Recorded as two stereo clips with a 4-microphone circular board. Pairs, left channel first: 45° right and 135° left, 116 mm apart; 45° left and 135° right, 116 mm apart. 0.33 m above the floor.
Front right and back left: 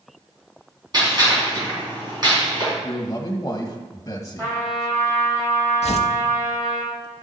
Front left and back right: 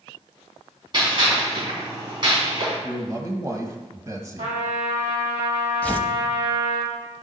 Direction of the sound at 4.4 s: 155° right.